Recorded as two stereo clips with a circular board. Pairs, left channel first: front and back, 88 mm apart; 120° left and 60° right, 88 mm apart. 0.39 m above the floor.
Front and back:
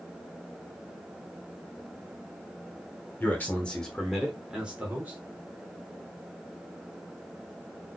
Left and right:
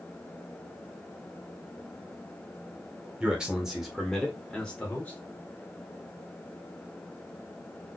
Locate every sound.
3.2 s a man speaking: 5° right, 1.4 m; by 5.2 s 165° left, 1.4 m